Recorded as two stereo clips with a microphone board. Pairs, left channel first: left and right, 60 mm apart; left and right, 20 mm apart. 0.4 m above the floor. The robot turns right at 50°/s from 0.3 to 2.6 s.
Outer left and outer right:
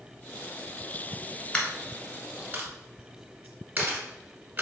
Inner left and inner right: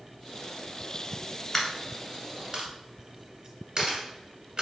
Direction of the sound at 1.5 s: 15° left (ahead or behind).